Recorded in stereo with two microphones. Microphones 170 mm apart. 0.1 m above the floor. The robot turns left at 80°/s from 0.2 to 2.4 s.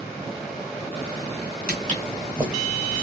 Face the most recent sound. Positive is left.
turn(degrees=-10)  # may be behind; listen again after turning